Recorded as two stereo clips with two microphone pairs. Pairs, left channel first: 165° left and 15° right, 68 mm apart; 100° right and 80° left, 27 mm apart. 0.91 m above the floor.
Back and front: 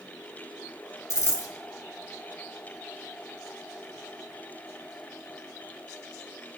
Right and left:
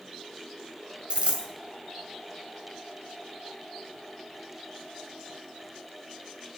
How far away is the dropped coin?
About 2 m.